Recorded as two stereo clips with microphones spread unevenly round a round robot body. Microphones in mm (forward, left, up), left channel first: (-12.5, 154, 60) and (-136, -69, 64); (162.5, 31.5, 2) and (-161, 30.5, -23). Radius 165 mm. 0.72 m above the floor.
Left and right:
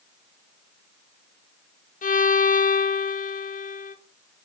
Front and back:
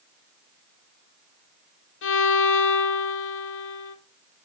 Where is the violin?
30° left, 1.3 m.